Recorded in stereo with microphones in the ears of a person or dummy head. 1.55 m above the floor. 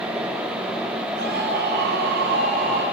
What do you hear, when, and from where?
1.1 s a scream: 55° right (ahead or behind), 8 m